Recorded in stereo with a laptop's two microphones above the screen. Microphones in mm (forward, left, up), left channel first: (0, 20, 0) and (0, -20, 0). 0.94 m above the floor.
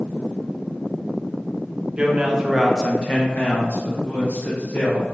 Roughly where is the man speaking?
Right.